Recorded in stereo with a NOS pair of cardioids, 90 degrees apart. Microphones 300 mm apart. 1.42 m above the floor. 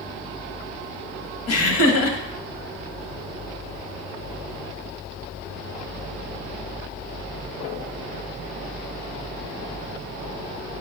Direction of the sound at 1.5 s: 55° left.